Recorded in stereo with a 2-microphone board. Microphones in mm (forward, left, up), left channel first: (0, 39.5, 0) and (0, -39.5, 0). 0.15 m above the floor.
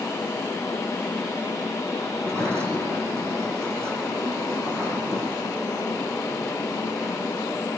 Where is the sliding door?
35° right (ahead or behind), 6 m.